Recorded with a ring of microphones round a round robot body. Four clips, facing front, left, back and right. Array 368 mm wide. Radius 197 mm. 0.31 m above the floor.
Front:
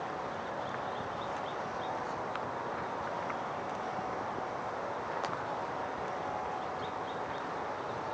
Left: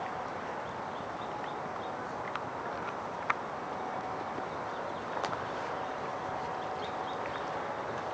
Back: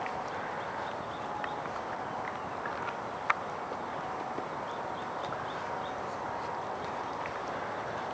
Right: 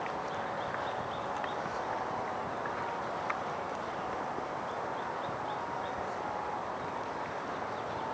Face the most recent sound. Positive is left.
No sound to turn to.